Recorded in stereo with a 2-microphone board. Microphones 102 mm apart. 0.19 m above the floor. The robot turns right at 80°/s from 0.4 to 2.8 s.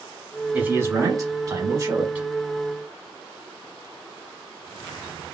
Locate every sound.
0.5 s a man speaking: 160° right, 1.2 m; by 2.3 s 20° right, 1.2 m